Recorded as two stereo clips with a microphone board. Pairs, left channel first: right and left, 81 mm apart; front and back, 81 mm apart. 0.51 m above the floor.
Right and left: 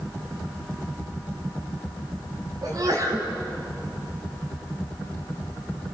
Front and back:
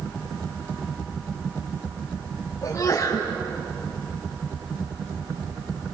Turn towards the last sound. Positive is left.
turn(degrees=55)